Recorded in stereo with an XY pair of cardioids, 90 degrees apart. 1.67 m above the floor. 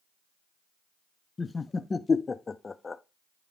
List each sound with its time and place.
1.4 s laughter: 30° left, 0.5 m